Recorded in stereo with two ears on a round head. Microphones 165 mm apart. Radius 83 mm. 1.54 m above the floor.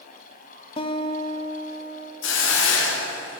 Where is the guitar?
30° left (ahead or behind), 0.5 m.